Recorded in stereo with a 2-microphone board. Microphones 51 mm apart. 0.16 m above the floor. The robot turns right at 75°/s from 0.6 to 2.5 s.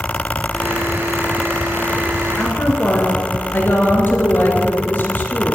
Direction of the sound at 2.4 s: 40° left (ahead or behind).